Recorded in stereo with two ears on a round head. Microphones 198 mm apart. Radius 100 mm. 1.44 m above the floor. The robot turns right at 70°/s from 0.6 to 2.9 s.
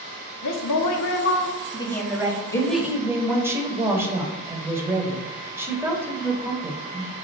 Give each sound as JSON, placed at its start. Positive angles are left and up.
{"t": 0.4, "sound": "a woman speaking", "azimuth_deg": 75, "distance_m": 0.9}
{"t": 2.5, "sound": "a woman speaking", "side_deg": 15, "distance_m": 1.0}